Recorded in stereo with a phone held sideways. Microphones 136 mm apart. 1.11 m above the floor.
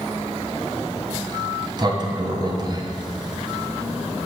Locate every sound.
1.3 s a sliding door: 35° right (ahead or behind), 0.7 m